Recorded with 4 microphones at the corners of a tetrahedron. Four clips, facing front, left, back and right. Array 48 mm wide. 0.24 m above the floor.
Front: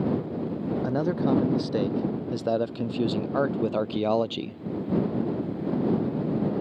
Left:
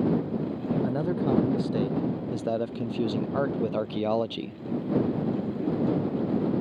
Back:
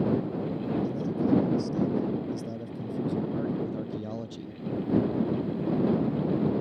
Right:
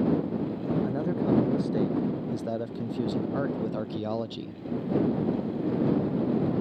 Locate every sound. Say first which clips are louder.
0.8 s a man speaking: left 1 dB, front 4 dB; 10° left; by 4.6 s 30° left